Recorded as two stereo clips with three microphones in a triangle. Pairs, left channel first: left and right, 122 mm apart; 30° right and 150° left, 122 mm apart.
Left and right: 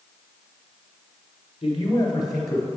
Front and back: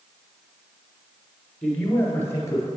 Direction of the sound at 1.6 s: 50° left.